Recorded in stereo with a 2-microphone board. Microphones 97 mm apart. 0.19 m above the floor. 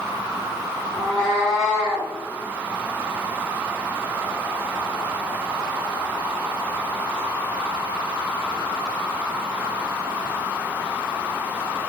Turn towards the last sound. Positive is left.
turn(degrees=-15)  # may be behind; listen again after turning